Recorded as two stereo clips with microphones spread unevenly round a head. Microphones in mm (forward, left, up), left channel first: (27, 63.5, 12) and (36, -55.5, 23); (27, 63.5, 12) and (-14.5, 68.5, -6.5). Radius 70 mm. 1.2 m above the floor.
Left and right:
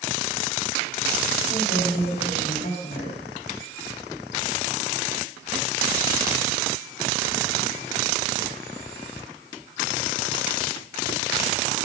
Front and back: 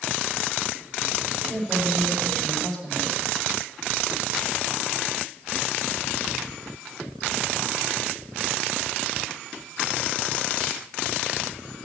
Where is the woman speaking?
75° left, 5.5 m.